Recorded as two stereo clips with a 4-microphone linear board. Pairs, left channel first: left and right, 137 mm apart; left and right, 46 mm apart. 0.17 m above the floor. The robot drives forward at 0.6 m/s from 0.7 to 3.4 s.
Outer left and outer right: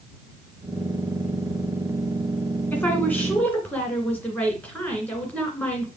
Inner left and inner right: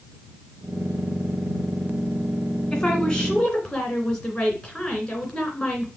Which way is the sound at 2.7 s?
10° left (ahead or behind).